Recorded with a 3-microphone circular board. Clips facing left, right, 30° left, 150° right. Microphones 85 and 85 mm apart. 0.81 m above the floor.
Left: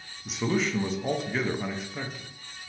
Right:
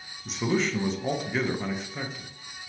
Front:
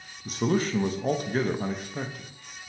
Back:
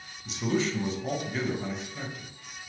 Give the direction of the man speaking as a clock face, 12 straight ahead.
12 o'clock.